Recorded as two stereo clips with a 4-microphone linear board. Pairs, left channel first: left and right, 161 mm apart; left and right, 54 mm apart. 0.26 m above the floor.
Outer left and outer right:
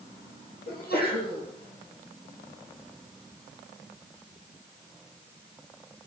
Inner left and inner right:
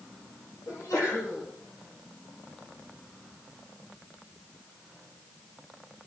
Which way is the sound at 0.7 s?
70° left (ahead or behind).